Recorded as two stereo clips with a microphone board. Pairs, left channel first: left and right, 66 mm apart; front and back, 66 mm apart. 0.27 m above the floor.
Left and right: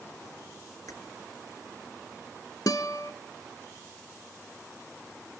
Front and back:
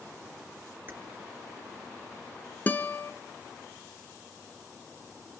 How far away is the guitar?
About 1.0 m.